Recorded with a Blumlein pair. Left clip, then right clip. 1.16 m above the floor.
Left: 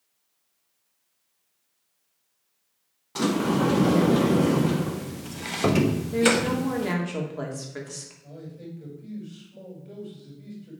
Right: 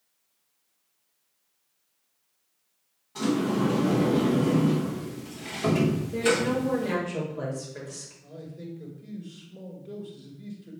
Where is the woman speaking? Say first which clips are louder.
Left 3 dB; 20° left, 2 m.